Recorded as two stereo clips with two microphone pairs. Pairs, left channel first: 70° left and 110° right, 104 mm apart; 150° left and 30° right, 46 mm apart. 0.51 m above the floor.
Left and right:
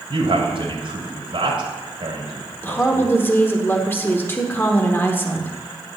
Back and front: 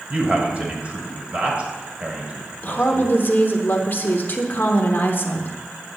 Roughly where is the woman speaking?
Behind left.